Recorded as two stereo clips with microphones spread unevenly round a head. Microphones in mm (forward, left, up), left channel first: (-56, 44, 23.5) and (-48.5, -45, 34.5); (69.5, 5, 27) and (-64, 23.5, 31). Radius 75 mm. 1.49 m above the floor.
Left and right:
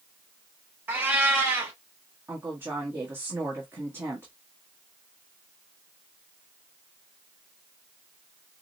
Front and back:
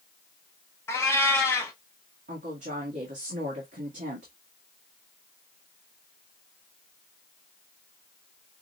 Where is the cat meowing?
65° right, 0.7 m.